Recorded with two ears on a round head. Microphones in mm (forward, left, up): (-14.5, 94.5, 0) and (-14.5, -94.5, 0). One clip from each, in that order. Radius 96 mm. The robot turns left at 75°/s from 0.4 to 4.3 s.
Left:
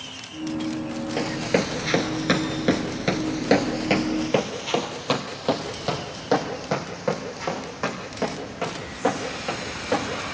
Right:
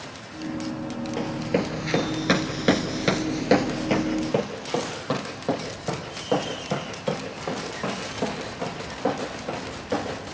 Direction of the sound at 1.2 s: 35° left (ahead or behind).